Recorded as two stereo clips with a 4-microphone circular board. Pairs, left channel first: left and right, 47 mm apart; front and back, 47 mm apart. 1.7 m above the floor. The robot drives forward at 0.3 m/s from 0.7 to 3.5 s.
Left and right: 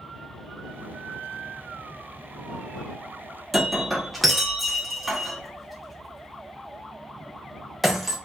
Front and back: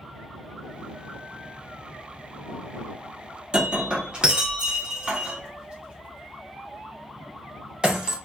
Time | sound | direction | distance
3.5 | breaking glass | straight behind | 0.8 m